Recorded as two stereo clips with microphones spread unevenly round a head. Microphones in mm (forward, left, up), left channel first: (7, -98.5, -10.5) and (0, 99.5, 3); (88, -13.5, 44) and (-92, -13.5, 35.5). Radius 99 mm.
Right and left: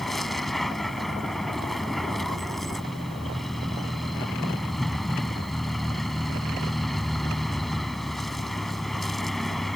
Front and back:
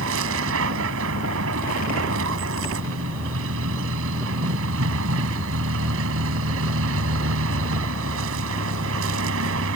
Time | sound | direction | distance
0.0 | a vehicle | straight behind | ?